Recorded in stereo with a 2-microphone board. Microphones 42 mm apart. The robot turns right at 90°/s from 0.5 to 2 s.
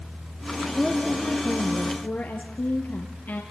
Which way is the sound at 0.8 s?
20° right.